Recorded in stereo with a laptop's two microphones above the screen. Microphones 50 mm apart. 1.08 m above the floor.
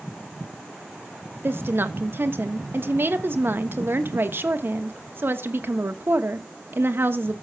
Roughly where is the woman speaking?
Right.